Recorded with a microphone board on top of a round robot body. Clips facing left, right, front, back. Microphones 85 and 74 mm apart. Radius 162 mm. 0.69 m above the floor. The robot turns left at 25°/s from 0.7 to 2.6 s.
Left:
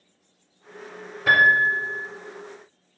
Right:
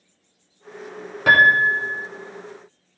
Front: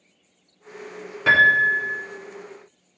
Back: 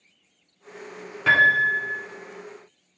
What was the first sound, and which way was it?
A piano, 90° right.